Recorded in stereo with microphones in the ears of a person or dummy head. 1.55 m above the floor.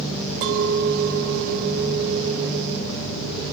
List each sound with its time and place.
0.4 s a clink: 50° right (ahead or behind), 0.6 m